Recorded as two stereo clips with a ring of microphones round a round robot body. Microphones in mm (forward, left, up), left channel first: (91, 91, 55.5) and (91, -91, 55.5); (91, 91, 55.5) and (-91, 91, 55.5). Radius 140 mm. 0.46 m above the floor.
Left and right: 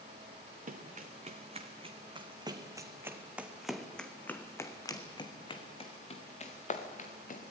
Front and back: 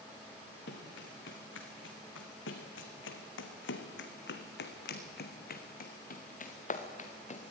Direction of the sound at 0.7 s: 45° right.